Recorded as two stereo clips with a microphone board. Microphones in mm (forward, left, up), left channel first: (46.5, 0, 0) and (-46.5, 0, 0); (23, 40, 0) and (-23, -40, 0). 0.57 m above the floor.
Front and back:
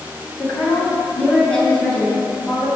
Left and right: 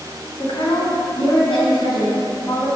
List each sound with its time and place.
0.4 s a woman speaking: 70° left, 3 m; by 2.7 s 95° left, 3.5 m